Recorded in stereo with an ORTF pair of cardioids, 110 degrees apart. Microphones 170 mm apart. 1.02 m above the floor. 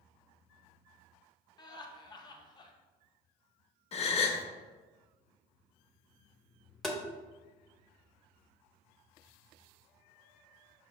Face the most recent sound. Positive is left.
turn(degrees=0)